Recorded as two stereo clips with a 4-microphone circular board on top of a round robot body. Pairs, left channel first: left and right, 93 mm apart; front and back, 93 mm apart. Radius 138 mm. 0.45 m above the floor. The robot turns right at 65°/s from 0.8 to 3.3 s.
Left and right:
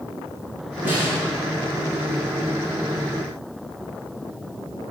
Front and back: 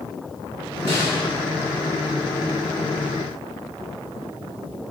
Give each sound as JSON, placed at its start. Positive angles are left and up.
{"t": 0.8, "sound": "a snare drum", "azimuth_deg": -20, "distance_m": 7.0}